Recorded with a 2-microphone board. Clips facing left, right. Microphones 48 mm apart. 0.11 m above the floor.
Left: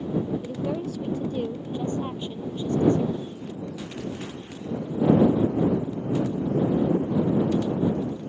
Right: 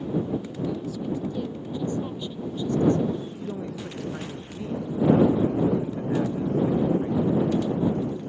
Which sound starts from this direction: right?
A man speaking, at 3.2 s.